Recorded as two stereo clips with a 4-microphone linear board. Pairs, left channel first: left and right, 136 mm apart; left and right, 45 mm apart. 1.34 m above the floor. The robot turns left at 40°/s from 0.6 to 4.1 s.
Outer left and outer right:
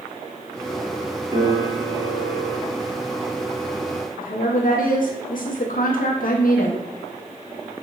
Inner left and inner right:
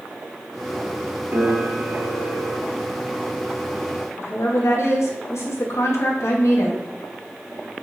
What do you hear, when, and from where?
1.3 s a piano: 45° right, 0.8 m; by 2.6 s 95° right, 0.8 m
4.2 s a woman speaking: 70° left (ahead or behind), 0.6 m